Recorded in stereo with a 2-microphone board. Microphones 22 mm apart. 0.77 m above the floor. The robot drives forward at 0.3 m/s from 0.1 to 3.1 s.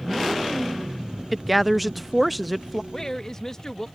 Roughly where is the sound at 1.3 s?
Centre.